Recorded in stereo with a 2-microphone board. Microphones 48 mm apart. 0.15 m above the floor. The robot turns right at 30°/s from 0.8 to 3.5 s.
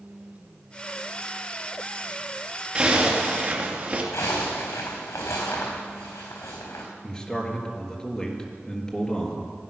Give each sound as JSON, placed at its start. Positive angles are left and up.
{"t": 2.8, "sound": "a zipper", "side_deg": -20, "distance_m": 2.5}
{"t": 4.1, "sound": "a zipper", "side_deg": 75, "distance_m": 4.0}
{"t": 7.0, "sound": "a man speaking", "side_deg": 10, "distance_m": 3.0}